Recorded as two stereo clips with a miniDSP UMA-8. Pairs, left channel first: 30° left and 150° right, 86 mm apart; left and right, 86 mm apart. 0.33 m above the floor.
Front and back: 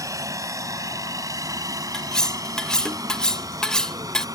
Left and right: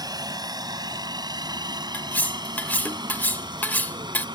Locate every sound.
0.0 s a helicopter: 110° right
1.9 s cutlery clinking: 100° left